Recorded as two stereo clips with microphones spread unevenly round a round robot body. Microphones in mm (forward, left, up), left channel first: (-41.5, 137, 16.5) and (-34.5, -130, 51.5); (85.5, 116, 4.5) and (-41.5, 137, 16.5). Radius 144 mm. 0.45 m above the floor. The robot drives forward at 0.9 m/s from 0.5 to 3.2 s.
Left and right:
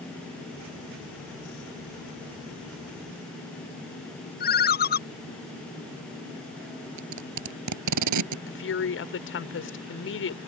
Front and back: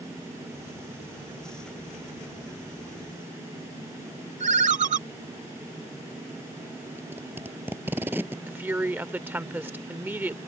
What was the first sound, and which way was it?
A ringtone, 145° left.